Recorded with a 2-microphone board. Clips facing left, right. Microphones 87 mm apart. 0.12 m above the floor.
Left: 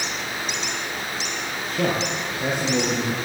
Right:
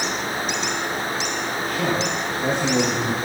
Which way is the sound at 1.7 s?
25° left (ahead or behind).